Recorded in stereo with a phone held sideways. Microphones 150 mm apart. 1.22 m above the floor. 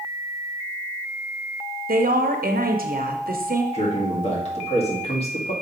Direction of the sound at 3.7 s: 45° left (ahead or behind).